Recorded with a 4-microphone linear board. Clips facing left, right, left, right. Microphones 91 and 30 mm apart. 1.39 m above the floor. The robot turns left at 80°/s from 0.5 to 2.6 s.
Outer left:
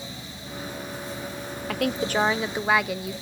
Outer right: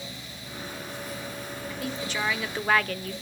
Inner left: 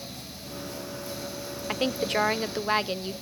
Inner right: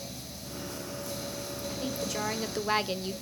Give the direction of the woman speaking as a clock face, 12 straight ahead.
9 o'clock.